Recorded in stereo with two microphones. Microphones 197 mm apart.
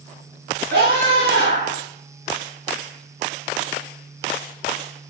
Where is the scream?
65° right (ahead or behind), 8 m.